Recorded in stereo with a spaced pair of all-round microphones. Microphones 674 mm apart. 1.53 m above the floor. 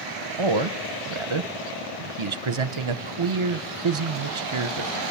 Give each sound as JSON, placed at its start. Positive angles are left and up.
{"t": 0.4, "sound": "a man speaking", "side_deg": -45, "distance_m": 0.9}